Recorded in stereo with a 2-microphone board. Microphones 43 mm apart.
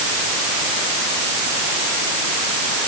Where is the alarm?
No alarm in this recording.